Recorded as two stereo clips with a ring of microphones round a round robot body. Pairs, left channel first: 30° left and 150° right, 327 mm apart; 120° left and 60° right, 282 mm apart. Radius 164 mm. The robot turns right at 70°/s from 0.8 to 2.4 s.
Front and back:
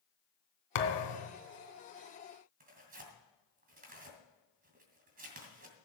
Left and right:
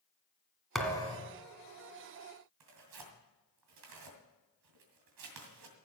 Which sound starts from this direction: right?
Tearing paper, at 2.6 s.